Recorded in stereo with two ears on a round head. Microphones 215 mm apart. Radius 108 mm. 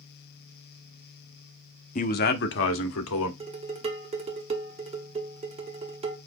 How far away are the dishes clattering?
About 0.9 m.